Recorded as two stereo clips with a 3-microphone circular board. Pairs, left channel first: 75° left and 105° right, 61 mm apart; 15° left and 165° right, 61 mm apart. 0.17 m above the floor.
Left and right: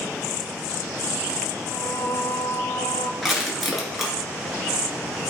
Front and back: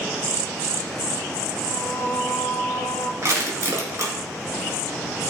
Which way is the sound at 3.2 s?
170° left.